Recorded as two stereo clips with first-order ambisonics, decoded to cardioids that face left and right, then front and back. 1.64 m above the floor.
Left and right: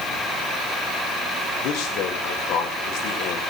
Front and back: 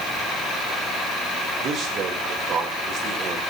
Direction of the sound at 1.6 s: 120° left.